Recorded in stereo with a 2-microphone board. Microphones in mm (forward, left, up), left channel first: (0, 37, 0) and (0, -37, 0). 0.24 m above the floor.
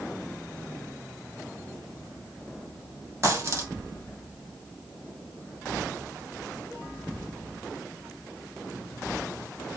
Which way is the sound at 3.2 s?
40° right (ahead or behind).